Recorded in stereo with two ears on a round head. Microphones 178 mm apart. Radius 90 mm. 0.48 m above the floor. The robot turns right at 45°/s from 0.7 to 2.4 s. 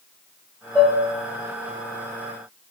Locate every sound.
0.8 s dishes clattering: 5° right (ahead or behind), 1.3 m; by 1.0 s 15° right (ahead or behind), 1.3 m